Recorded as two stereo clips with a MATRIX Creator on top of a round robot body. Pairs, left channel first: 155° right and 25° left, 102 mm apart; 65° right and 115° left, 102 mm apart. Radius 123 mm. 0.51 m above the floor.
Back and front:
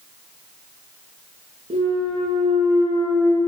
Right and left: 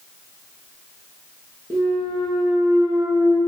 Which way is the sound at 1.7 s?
45° left.